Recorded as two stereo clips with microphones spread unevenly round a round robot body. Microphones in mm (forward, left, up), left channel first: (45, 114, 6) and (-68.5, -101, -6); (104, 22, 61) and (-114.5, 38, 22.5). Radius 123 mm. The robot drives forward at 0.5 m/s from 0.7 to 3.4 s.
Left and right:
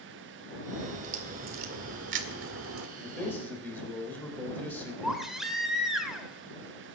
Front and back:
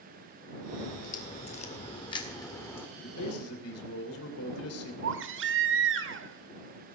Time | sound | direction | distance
0.8 | a crack | 55° right | 2.0 m
3.0 | a man speaking | 20° right | 3.5 m
5.0 | a baby crying | 155° left | 1.7 m